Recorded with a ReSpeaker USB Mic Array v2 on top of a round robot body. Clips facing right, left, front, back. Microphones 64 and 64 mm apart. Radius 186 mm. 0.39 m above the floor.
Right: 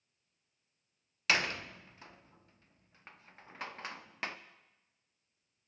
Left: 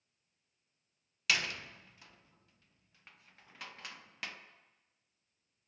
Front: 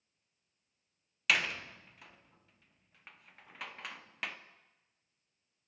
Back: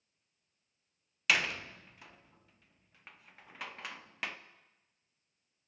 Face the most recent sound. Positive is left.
turn(degrees=-95)